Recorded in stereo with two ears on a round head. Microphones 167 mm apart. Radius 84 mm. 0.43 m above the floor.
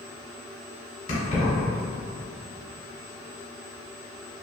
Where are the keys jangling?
45° left (ahead or behind), 1.4 m.